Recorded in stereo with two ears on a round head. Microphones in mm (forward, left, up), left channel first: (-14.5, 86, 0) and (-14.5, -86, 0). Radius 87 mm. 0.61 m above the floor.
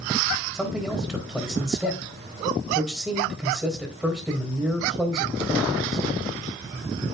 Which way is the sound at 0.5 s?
5° right (ahead or behind).